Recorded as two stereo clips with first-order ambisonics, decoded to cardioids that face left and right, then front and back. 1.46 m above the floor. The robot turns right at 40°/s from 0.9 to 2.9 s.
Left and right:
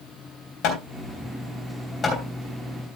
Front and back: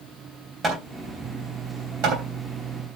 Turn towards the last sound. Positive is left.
turn(degrees=-170)